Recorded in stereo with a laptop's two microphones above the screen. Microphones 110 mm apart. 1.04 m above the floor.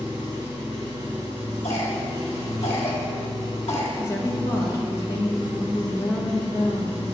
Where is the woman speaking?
25° left (ahead or behind), 0.8 m.